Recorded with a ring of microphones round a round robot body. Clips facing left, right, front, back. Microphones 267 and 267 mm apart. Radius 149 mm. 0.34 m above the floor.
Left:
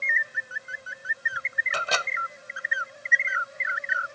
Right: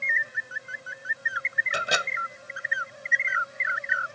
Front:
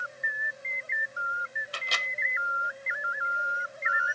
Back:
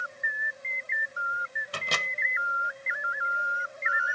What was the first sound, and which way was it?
A microwave, 165° right.